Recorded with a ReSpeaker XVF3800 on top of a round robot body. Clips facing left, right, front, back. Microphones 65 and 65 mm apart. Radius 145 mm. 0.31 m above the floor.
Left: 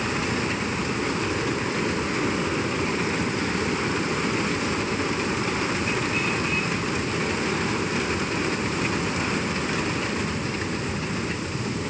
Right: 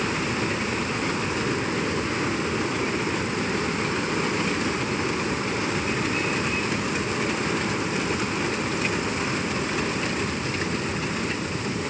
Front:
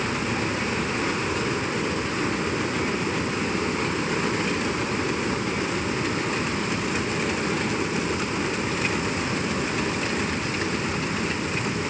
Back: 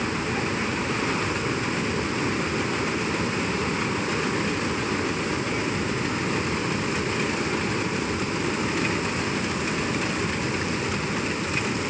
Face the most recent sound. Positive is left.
No sound to turn to.